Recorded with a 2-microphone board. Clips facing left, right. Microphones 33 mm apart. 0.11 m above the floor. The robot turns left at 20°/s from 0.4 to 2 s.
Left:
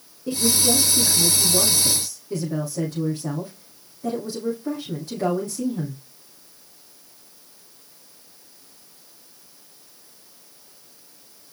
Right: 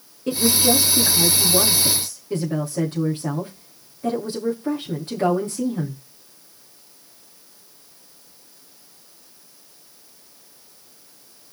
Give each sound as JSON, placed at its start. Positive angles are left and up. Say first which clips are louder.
{"t": 0.3, "sound": "a woman speaking", "louder": "right 3 dB", "azimuth_deg": -105, "distance_m": 9.0}